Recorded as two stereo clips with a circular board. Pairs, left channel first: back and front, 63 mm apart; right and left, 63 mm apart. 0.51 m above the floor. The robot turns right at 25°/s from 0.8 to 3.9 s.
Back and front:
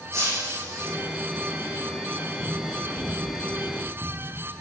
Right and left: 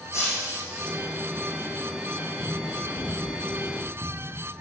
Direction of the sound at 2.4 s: 40° left.